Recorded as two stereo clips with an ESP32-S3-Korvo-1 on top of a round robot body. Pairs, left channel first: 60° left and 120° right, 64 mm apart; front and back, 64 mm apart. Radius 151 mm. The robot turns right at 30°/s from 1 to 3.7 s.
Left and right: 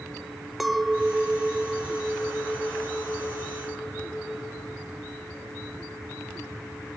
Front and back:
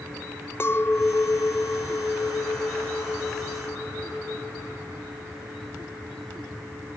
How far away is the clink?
About 0.7 m.